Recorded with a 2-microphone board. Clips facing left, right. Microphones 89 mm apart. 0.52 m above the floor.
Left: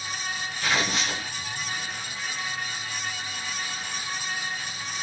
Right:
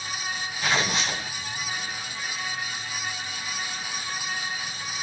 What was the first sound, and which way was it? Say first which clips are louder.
Tearing paper: right 1 dB; 20° right (ahead or behind).